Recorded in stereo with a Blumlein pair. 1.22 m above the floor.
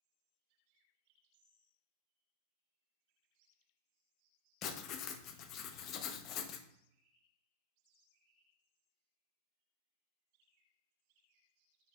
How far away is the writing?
About 0.6 m.